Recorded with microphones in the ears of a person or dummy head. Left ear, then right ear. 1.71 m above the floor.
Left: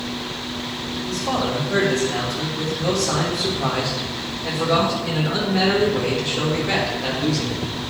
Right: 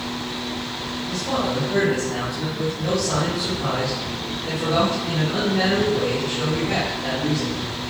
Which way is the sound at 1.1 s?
50° left (ahead or behind).